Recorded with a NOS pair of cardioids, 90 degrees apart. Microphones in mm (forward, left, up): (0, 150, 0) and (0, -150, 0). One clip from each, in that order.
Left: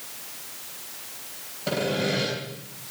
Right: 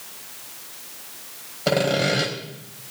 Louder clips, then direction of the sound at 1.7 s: Right 5 dB; 65° right.